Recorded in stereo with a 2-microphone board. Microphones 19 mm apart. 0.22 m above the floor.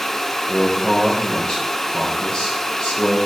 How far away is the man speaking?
About 3.5 m.